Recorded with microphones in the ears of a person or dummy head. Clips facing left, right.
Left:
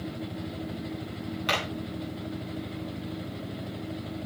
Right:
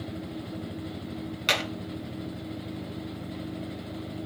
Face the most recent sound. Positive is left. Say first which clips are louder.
# right 1 dB
turn(degrees=-30)  # may be behind; listen again after turning